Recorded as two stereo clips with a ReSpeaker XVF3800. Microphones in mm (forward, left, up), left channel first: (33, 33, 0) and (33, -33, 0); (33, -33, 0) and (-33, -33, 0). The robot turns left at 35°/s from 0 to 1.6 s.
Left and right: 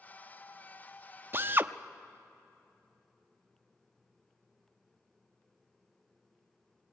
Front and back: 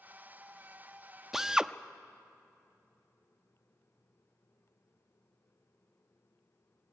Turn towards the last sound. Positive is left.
turn(degrees=-105)